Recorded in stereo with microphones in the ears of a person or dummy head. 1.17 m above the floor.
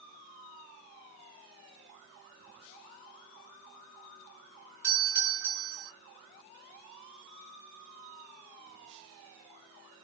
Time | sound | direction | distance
4.8 | a doorbell | 10° right (ahead or behind) | 1.0 m